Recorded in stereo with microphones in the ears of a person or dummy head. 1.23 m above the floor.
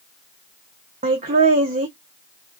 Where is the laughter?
35° right (ahead or behind), 0.6 m.